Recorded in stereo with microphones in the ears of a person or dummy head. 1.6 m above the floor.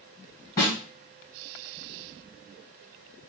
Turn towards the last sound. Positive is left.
turn(degrees=10)  # may be behind; listen again after turning